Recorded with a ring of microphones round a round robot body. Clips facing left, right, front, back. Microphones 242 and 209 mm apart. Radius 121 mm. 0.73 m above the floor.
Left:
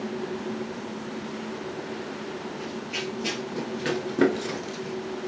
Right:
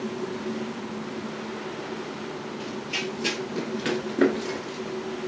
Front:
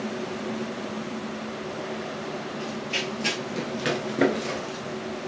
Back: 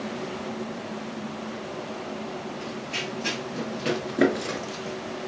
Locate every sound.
2.6 s running footsteps: 35° right, 1.4 m; by 5.0 s 140° left, 0.9 m